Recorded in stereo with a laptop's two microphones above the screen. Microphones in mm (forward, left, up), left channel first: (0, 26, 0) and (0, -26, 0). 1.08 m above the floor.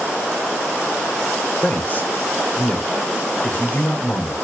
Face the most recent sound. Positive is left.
turn(degrees=35)  # may be behind; listen again after turning